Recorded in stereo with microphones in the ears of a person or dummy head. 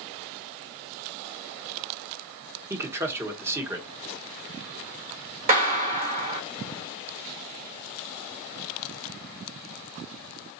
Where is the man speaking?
15° right (ahead or behind), 1.0 m.